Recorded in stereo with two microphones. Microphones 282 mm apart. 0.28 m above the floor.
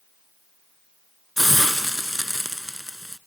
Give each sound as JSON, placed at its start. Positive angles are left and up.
{"t": 1.4, "sound": "a hiss", "side_deg": 0, "distance_m": 1.0}